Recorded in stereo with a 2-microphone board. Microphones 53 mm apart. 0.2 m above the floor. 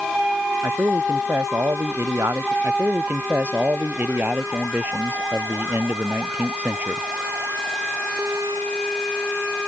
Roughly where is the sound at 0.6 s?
Right.